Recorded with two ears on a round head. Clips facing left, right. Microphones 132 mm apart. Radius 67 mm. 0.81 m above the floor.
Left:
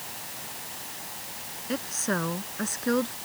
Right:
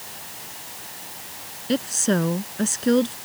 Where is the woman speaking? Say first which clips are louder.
Right 8 dB; 35° right (ahead or behind); by 3.2 s 25° right (ahead or behind).